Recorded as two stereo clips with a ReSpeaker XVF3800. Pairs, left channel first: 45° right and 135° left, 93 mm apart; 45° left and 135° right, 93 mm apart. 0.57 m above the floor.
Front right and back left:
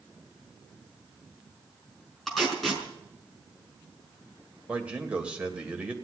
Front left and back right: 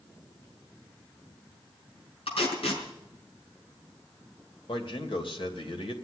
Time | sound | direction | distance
2.3 | tape being pulled | 45° left | 5 m
4.7 | a man speaking | 60° left | 2.5 m